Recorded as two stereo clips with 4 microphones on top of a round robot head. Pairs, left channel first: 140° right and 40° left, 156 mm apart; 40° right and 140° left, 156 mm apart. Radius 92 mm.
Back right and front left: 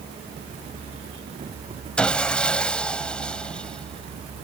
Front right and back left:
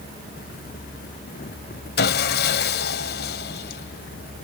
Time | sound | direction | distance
2.0 | sawing | 60° right | ?